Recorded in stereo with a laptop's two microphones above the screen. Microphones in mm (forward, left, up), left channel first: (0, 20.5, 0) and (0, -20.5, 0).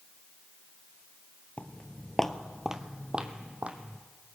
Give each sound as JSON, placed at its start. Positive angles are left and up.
{"t": 1.6, "sound": "footsteps", "side_deg": 35, "distance_m": 1.3}